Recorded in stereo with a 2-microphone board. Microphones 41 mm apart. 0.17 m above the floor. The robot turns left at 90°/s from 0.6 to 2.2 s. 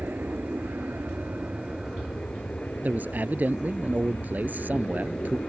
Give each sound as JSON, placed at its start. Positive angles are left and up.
{"t": 0.0, "sound": "an aircraft", "azimuth_deg": -65}
{"t": 2.8, "sound": "a man speaking", "side_deg": -45}